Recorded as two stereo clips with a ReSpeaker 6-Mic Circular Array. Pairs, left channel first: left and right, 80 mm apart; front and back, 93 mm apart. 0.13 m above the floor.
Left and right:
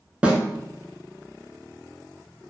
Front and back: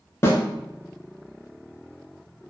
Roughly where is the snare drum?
Ahead right.